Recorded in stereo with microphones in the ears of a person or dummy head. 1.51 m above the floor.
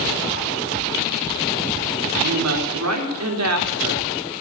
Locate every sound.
2.1 s a woman speaking: 85° right, 3.5 m